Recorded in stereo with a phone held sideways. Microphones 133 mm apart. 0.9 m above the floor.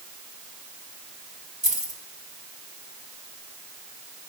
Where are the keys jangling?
75° right (ahead or behind), 1.9 m.